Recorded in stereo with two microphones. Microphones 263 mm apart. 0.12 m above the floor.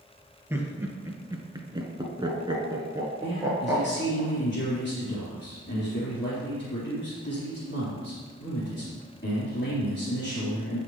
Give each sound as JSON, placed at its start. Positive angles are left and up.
{"t": 0.5, "sound": "laughter", "side_deg": -10, "distance_m": 2.5}
{"t": 3.2, "sound": "a man speaking", "side_deg": 40, "distance_m": 3.5}